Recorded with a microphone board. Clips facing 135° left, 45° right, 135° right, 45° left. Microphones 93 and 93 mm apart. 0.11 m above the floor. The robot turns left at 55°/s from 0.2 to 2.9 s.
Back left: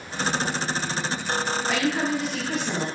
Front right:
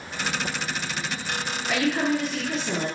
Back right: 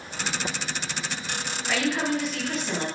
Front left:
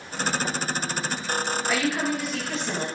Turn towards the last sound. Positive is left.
turn(degrees=55)